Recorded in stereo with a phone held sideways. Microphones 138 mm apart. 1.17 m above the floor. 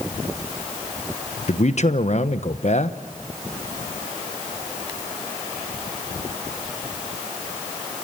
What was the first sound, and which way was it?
A man speaking, 55° left (ahead or behind).